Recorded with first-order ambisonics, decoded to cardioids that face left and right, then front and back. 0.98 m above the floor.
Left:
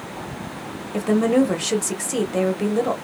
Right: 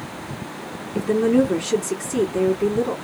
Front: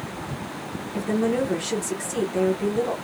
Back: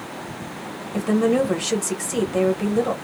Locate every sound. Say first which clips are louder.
0.9 s a woman speaking: even, back 4 dB; 110° left, 1.3 m